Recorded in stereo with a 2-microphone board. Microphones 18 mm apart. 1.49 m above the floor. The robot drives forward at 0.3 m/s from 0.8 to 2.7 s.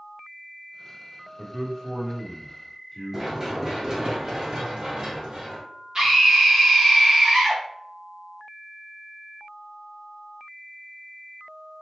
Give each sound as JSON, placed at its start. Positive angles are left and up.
{"t": 1.4, "sound": "a man speaking", "side_deg": 5, "distance_m": 1.1}
{"t": 3.1, "sound": "running footsteps", "side_deg": -25, "distance_m": 1.6}
{"t": 6.0, "sound": "a scream", "side_deg": -40, "distance_m": 0.7}